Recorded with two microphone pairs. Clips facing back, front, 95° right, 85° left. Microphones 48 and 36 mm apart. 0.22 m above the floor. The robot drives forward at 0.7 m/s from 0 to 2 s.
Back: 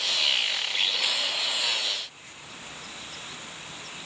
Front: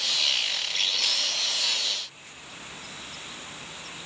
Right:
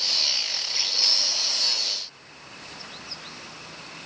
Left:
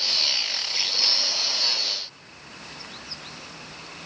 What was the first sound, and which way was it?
Only background noise.